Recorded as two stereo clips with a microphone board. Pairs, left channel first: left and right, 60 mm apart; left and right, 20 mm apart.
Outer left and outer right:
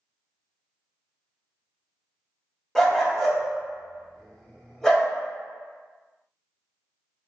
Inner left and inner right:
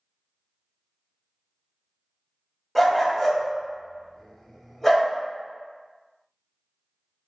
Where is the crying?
No crying in this recording.